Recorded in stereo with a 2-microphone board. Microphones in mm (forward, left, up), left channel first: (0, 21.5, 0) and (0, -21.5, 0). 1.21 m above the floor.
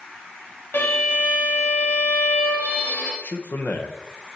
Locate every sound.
0.7 s a violin: 65° left (ahead or behind), 2 m
3.2 s a man speaking: 50° left (ahead or behind), 1.1 m